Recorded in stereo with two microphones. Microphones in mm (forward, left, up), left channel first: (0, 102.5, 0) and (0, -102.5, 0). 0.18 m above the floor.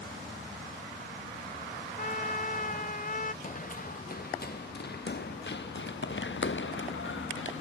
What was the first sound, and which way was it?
A trumpet, 40° left (ahead or behind).